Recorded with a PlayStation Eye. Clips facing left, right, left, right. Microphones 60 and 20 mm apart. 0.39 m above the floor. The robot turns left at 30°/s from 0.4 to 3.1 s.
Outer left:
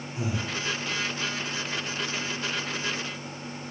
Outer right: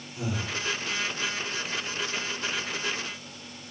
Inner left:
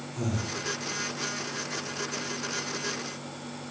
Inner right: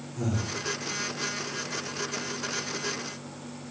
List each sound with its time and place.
0.2 s breathing: 25° left (ahead or behind), 1.5 m; by 0.5 s 30° left (ahead or behind), 1.5 m